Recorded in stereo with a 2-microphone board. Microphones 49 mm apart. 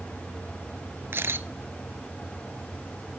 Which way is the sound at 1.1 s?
60° right (ahead or behind).